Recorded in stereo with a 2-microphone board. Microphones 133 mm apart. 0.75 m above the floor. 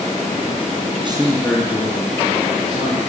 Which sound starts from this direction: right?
A man speaking, at 0.9 s.